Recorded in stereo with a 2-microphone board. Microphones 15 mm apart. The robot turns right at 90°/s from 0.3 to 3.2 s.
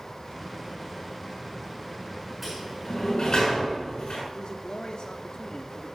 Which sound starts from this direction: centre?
A sliding door, at 2.4 s.